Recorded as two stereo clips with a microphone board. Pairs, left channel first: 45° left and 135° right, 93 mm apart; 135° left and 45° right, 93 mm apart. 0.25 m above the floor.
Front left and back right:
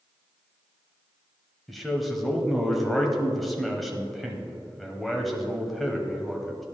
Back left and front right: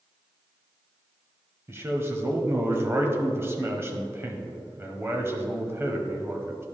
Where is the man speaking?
45° right, 1.0 m.